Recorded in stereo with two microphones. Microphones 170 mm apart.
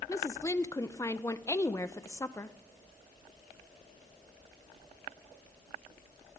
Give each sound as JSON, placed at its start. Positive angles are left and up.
{"t": 0.1, "sound": "a woman speaking", "side_deg": 15, "distance_m": 0.6}